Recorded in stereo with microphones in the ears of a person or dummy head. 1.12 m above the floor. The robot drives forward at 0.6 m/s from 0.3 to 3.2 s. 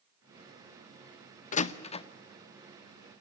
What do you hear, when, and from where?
1.5 s a door slam: 40° left (ahead or behind), 0.6 m; by 2.0 s 25° left (ahead or behind), 0.9 m